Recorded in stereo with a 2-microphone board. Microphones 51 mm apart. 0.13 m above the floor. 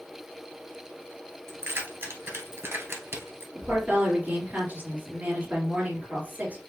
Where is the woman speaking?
35° right (ahead or behind), 2.5 m.